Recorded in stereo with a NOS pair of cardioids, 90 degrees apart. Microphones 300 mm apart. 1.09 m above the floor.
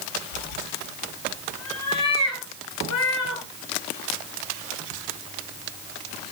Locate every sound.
0.3 s a cat meowing: 60° left, 7 m